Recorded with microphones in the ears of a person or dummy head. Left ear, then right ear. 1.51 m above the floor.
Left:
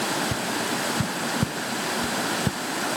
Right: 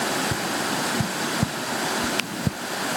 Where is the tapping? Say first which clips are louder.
Right 1 dB; 45° left (ahead or behind).